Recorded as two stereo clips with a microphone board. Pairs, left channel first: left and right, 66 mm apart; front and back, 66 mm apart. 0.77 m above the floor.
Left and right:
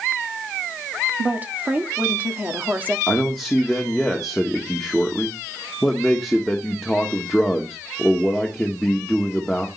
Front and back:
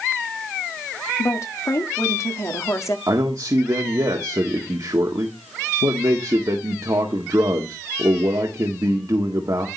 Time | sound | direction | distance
1.2 | a woman speaking | 30° right | 1.6 m
3.1 | a man speaking | 175° left | 1.4 m